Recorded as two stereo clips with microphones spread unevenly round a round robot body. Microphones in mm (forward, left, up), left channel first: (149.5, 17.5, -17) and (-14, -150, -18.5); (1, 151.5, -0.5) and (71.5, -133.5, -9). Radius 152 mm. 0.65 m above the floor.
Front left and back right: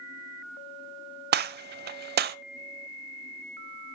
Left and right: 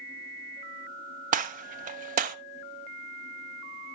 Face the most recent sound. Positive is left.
turn(degrees=-130)